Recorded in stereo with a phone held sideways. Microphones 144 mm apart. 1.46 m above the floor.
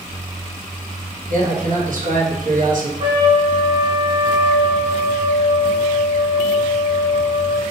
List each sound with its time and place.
1.3 s a man speaking: 65° right (ahead or behind), 1.0 m
3.0 s a trumpet: 35° right (ahead or behind), 0.7 m